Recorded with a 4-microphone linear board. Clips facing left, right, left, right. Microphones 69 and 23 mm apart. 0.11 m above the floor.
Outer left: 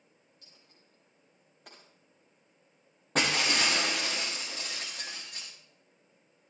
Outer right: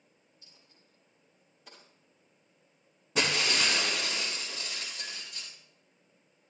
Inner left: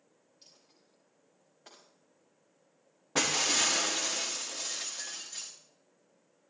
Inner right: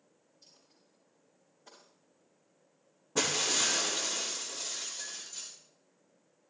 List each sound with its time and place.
0.4 s a dropped coin: 80° left, 7.5 m
3.1 s breaking glass: 80° left, 5.5 m